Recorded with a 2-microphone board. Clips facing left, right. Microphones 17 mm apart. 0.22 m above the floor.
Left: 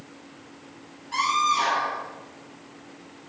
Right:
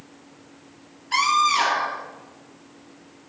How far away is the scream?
About 4 m.